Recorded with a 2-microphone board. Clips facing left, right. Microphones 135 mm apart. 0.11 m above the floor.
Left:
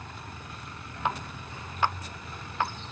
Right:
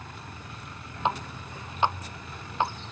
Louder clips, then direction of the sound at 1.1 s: Right 3 dB; 20° right (ahead or behind).